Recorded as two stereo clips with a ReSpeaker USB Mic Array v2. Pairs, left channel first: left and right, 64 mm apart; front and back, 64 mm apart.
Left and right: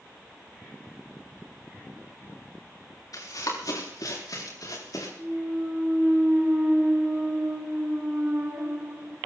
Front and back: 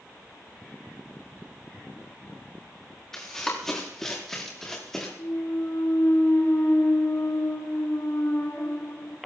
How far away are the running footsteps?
About 5.5 m.